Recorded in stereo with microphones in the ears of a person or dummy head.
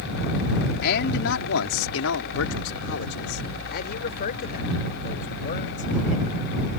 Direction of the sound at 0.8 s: 55° left (ahead or behind).